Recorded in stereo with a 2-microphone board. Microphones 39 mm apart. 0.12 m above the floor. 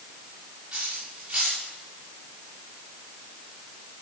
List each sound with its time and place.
0.7 s cutlery clinking: 45° right (ahead or behind), 6.5 m